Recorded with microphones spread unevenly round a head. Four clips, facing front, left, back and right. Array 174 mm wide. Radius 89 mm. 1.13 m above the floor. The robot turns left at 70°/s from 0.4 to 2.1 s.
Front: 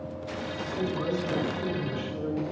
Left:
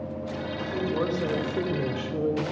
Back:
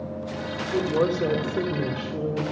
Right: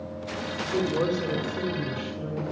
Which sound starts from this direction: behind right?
A woman speaking, at 0.7 s.